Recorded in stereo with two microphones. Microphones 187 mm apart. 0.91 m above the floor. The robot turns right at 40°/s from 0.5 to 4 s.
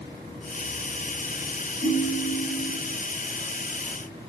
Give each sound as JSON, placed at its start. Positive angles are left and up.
{"t": 1.8, "sound": "a ringtone", "azimuth_deg": 100, "distance_m": 2.5}